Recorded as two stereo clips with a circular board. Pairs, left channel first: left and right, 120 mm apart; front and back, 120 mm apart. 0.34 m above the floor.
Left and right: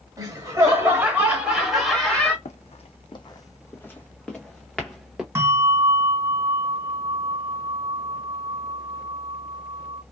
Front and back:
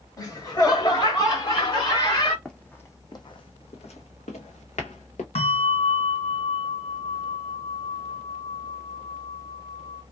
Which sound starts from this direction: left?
Running footsteps, at 2.5 s.